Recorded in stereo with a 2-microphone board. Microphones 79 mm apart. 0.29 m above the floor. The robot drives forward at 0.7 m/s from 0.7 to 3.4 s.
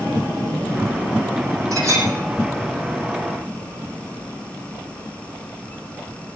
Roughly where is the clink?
Right.